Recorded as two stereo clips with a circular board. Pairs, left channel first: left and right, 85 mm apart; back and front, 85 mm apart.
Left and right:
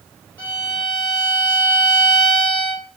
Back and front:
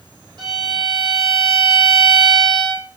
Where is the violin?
25° left, 3 m.